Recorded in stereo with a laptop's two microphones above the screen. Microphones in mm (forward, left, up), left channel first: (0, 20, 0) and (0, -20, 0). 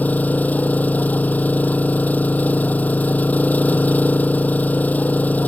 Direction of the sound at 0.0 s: 50° left (ahead or behind).